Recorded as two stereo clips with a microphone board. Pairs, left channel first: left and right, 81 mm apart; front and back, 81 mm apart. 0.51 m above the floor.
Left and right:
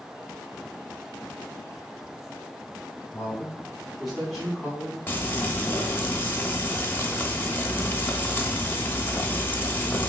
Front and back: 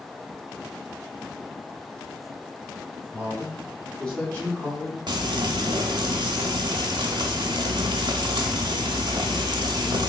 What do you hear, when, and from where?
3.1 s a man speaking: 140° left, 1.1 m; by 5.0 s 25° right, 1.3 m
5.1 s frying: 155° left, 0.5 m